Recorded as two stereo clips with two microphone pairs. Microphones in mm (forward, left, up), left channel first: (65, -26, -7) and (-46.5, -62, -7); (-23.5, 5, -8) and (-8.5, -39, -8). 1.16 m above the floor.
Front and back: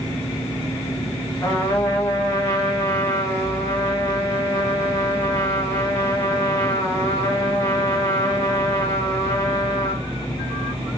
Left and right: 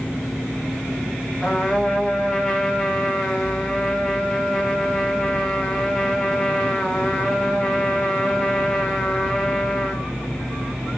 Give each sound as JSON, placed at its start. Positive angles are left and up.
{"t": 1.4, "sound": "a trumpet", "azimuth_deg": 45, "distance_m": 0.9}